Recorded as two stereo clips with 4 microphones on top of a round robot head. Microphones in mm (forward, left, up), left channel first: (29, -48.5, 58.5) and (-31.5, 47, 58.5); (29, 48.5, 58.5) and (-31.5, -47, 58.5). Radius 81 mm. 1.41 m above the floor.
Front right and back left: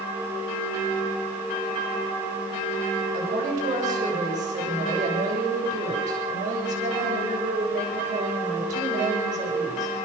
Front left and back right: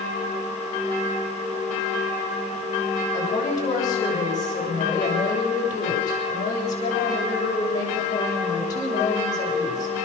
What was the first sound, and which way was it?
A woman speaking, 115° left.